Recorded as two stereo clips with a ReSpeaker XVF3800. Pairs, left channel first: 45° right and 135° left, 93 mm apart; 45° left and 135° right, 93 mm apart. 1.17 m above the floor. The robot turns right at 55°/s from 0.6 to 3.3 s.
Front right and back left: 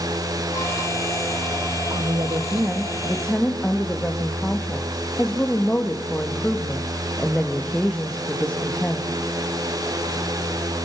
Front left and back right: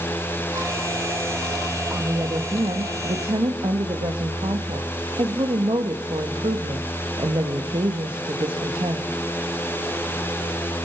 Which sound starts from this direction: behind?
A woman speaking, at 1.9 s.